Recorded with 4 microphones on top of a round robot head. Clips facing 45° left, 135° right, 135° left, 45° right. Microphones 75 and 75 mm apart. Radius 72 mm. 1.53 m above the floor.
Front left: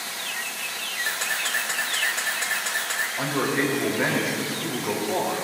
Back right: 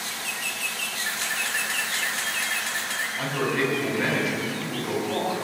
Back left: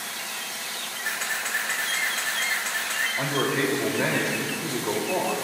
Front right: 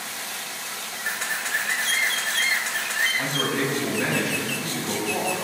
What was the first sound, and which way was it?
A camera shutter, 35° left.